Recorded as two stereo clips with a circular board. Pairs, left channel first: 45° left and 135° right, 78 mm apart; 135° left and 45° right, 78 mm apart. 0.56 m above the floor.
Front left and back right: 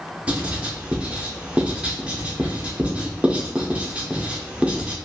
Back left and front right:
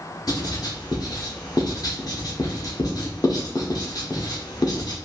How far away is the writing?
About 0.7 m.